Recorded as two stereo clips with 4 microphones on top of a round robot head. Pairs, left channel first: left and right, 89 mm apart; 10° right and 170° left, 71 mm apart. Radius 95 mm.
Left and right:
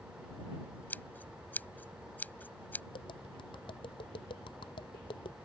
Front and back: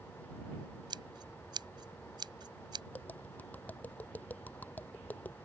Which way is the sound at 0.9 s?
160° left.